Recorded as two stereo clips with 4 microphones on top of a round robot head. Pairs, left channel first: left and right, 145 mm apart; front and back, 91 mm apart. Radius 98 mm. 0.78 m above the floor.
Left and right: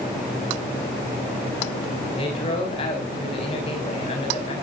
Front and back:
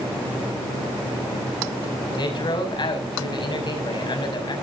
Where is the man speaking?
30° left, 5.5 m.